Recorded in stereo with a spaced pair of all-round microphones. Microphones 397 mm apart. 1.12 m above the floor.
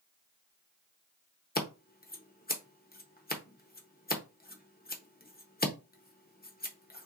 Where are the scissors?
25° left (ahead or behind), 0.8 m.